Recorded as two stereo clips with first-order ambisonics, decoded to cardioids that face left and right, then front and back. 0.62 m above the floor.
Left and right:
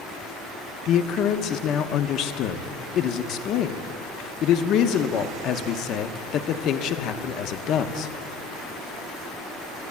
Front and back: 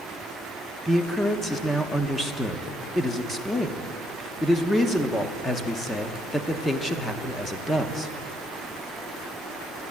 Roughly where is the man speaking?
Left.